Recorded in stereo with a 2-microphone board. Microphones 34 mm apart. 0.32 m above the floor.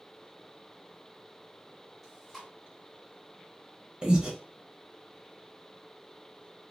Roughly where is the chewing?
Centre.